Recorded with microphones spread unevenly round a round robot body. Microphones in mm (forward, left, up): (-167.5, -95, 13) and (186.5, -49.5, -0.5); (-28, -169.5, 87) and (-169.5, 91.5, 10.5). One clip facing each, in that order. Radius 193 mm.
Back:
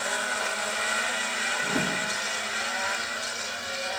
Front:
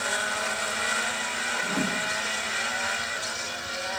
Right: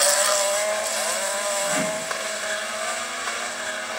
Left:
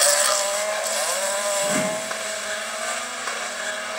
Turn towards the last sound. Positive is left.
turn(degrees=150)